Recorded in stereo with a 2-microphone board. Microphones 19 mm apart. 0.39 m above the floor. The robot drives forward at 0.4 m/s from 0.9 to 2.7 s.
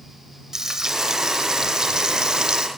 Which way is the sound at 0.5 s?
30° right (ahead or behind).